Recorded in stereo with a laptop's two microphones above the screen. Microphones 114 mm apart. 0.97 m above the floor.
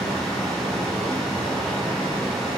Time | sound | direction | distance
0.0 | a fan | centre (ahead or behind) | 1.8 m